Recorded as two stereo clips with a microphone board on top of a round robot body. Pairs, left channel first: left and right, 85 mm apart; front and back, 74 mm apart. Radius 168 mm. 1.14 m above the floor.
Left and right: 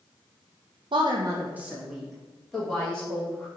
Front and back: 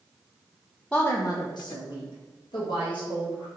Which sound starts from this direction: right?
A woman speaking, at 0.9 s.